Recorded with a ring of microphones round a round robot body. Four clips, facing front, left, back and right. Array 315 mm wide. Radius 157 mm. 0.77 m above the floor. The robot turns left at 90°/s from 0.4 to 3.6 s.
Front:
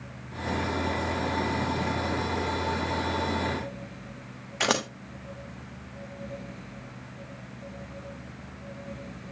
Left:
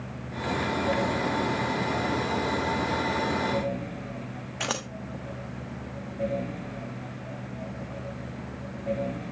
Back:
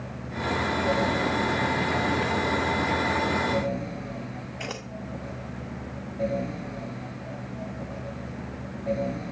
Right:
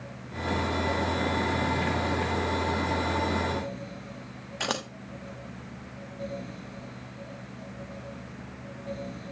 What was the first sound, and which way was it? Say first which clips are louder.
Scissors: right 1 dB, front 12 dB; 5° right.